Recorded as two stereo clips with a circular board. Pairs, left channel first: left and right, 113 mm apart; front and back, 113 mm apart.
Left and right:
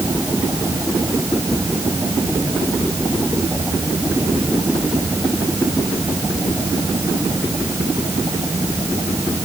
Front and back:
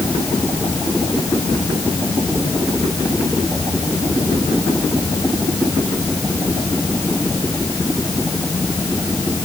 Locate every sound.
Only background noise.